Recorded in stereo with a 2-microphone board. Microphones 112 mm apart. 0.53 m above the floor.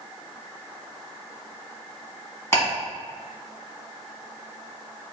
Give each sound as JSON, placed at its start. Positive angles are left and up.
{"t": 2.5, "sound": "ticking", "side_deg": 25, "distance_m": 2.0}